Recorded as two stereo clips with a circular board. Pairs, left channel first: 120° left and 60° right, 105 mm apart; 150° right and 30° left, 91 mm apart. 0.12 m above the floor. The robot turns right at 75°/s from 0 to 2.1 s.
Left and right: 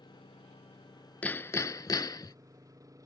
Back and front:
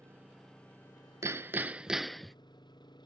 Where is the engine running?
85° left; by 3.1 s 115° right.